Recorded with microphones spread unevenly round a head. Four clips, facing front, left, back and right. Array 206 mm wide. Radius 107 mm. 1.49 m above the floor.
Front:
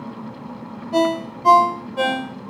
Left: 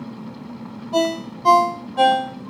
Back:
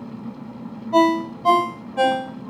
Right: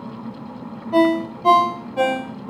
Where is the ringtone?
90° right, 3 m.